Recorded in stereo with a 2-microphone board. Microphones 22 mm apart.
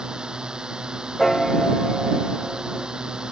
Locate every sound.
0.0 s a drone: 35° right (ahead or behind)
1.2 s a piano: 5° left (ahead or behind)